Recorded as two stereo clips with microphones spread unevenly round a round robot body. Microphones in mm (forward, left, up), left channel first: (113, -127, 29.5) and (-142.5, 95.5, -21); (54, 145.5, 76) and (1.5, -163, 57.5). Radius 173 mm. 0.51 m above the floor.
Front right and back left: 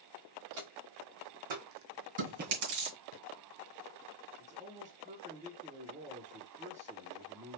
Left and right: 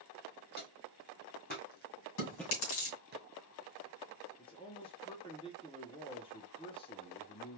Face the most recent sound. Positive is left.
turn(degrees=145)